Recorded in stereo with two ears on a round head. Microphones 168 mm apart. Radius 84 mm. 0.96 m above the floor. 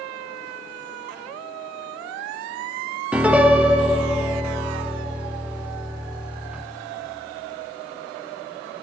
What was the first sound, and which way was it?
A piano, 5° right (ahead or behind).